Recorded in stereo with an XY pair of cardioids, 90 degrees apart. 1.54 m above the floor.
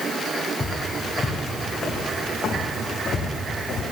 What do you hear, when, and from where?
0.6 s footsteps: 25° left, 5.5 m; by 3.8 s 75° left, 5 m